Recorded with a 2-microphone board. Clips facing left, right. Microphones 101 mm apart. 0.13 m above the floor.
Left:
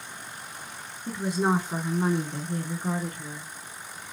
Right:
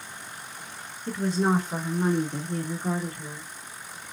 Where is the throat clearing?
No throat clearing in this recording.